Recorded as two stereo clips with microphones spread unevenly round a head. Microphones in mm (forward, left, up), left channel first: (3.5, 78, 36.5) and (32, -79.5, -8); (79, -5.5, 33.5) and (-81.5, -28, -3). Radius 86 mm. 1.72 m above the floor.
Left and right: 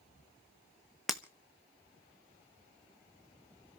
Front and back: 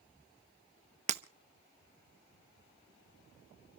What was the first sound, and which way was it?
Breaking glass, 160° left.